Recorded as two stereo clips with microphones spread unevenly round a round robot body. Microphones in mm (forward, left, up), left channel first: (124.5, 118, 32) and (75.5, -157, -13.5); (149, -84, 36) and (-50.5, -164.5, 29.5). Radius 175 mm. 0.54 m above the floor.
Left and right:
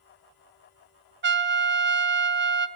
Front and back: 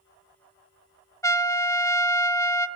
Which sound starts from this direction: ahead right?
A trumpet, at 1.2 s.